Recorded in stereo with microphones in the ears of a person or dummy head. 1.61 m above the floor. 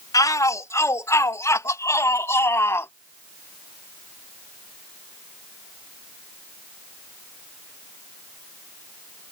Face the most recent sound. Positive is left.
turn(degrees=10)  # may be behind; listen again after turning